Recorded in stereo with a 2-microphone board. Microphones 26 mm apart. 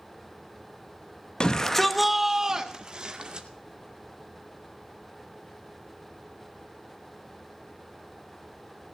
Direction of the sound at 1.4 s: 35° left (ahead or behind).